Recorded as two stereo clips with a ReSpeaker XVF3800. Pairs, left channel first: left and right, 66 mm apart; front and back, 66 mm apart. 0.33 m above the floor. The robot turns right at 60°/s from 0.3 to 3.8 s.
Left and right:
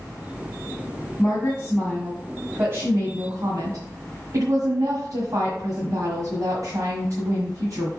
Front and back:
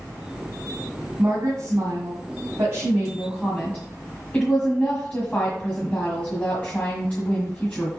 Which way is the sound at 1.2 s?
140° left.